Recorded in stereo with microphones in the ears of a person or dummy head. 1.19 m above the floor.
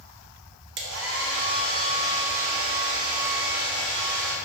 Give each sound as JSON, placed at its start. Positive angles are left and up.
{"t": 0.8, "sound": "a hair dryer", "side_deg": -55, "distance_m": 0.6}